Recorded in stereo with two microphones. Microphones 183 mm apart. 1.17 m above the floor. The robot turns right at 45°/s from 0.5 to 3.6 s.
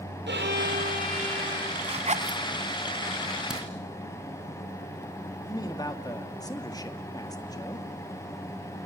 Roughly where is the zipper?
Right.